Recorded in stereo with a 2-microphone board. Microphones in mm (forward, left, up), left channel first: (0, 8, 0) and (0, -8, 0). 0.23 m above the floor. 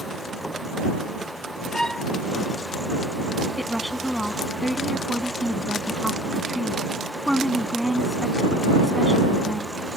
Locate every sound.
1.7 s a violin: 35° left (ahead or behind)
3.6 s a woman speaking: 10° right (ahead or behind)